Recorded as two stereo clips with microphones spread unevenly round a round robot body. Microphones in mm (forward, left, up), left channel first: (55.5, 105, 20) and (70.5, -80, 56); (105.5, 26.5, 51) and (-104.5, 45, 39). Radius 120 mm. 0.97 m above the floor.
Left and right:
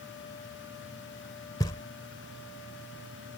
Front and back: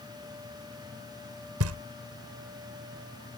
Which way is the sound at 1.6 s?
170° left.